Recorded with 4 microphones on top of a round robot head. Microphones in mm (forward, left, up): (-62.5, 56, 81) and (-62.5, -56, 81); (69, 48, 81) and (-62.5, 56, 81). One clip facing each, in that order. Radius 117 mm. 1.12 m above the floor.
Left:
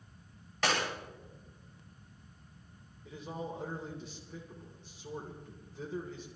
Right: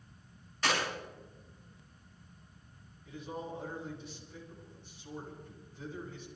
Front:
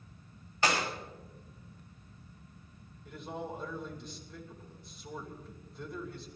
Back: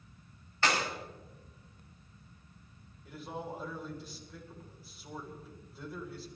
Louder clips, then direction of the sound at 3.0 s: Left 1 dB, front 1 dB; 90° left.